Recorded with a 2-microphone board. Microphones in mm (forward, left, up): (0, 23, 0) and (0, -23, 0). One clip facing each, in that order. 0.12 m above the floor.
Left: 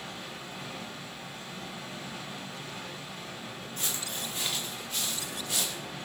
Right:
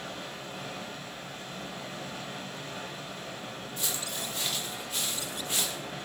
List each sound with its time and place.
0.0 s running water: 50° right (ahead or behind), 1.2 m
3.8 s footsteps: 45° left (ahead or behind), 0.8 m; by 5.8 s 35° right (ahead or behind), 1.4 m